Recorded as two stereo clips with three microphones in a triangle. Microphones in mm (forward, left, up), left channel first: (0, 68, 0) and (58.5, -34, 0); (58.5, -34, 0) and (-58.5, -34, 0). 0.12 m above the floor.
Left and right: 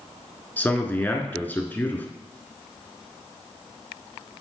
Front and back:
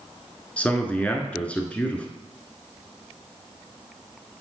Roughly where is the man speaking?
Ahead left.